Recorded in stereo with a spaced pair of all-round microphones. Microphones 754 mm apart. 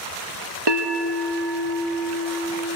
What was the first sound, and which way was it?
A bell, 35° right (ahead or behind).